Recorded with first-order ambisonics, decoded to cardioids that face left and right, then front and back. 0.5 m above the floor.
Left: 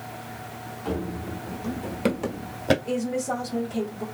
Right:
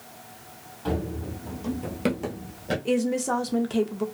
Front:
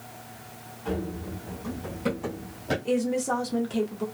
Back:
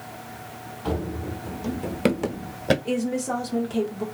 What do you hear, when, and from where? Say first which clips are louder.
0.8 s running footsteps: right 1 dB, back 3 dB; 145° right, 1.1 m; by 2.8 s 135° left, 0.7 m
2.9 s a woman speaking: right 2 dB, front 1 dB; 90° right, 0.7 m